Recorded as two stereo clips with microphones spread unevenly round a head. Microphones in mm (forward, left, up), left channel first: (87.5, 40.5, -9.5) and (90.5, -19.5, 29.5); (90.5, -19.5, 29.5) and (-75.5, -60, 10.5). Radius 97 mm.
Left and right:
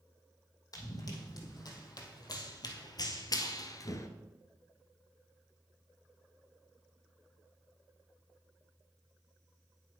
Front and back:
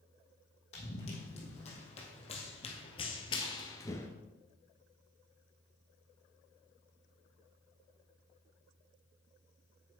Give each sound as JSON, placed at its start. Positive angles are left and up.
{"t": 0.7, "sound": "running footsteps", "azimuth_deg": 70, "distance_m": 3.0}